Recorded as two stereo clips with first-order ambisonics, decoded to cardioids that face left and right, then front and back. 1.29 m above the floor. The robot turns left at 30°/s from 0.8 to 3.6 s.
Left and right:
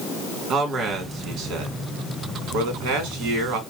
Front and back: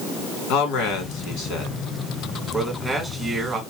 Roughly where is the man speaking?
Ahead right.